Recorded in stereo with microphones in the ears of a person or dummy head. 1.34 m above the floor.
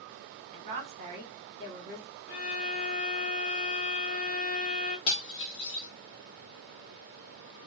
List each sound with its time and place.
0.5 s a woman speaking: 60° right (ahead or behind), 1.6 m
2.3 s a violin: 55° left (ahead or behind), 0.8 m
5.1 s cutlery clinking: 30° left (ahead or behind), 0.6 m